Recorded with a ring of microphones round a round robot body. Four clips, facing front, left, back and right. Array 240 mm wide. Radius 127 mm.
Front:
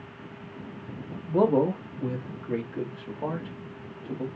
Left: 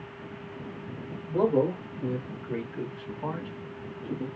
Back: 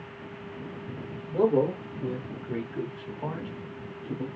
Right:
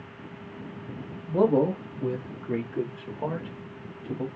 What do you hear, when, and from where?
1.3 s a man speaking: 20° right, 1.3 m; by 4.3 s 70° right, 2.5 m